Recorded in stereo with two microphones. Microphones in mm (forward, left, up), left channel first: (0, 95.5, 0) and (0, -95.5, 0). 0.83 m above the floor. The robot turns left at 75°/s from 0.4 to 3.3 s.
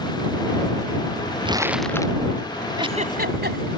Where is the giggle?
20° right (ahead or behind); by 3.7 s 60° right (ahead or behind).